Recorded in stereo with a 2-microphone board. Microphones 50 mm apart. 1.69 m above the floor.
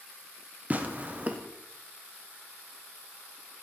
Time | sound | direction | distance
0.7 | tearing paper | 30° right (ahead or behind) | 1.2 m